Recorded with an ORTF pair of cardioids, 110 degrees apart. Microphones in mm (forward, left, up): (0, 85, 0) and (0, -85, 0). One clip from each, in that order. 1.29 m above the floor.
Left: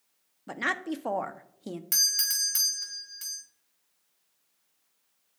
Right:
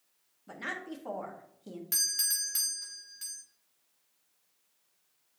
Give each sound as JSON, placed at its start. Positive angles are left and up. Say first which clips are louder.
{"t": 0.5, "sound": "a woman speaking", "louder": "left 8 dB", "azimuth_deg": 45, "distance_m": 0.8}
{"t": 1.9, "sound": "a doorbell", "louder": "left 5 dB", "azimuth_deg": 25, "distance_m": 1.2}